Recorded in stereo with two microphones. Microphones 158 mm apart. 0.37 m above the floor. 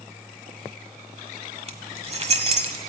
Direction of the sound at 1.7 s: 40° right (ahead or behind).